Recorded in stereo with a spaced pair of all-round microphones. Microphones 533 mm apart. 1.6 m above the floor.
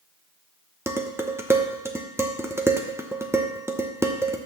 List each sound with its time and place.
0.9 s dishes clattering: 5° right (ahead or behind), 0.8 m